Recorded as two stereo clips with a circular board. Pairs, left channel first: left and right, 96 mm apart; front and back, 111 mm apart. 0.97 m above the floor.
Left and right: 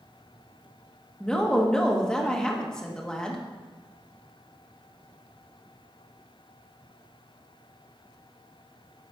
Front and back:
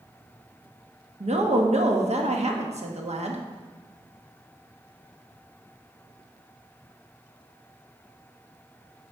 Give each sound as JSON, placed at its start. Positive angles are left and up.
{"t": 1.2, "sound": "a woman speaking", "azimuth_deg": 170, "distance_m": 1.0}